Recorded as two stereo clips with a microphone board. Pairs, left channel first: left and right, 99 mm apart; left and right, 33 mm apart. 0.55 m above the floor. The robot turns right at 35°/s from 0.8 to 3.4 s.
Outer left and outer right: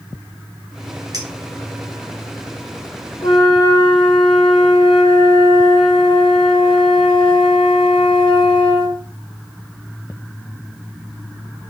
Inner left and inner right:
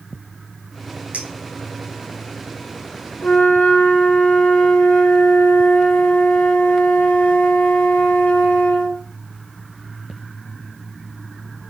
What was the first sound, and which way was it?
A clink, 45° right (ahead or behind).